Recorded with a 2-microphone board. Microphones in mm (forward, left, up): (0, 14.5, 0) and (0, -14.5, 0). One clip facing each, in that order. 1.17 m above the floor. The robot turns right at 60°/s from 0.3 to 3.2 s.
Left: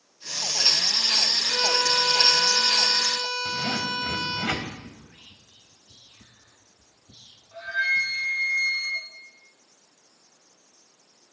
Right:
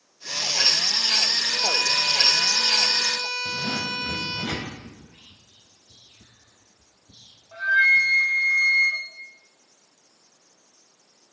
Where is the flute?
55° right (ahead or behind), 4 m.